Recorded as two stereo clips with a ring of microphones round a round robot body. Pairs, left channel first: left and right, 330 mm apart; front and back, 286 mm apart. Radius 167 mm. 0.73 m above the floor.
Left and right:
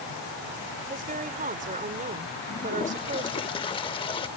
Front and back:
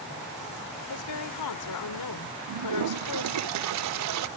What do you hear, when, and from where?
0.9 s a woman speaking: 25° right
2.5 s a toilet flushing: 165° left